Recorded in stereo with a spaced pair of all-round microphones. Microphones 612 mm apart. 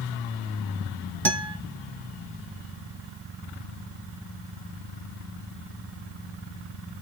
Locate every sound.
1.2 s a guitar: 40° right (ahead or behind), 0.8 m